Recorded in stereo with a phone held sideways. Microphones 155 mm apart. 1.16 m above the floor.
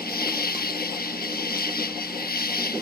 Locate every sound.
0.0 s an insect: 85° left